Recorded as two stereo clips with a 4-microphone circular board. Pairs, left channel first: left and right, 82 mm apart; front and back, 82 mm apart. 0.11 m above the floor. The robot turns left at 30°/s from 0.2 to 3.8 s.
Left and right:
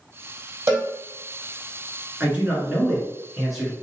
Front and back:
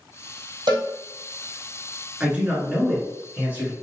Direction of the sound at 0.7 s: 155° right.